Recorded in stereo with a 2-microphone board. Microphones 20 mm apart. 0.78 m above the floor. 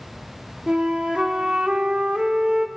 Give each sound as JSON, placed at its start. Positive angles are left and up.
{"t": 0.7, "sound": "a flute", "side_deg": -75, "distance_m": 1.5}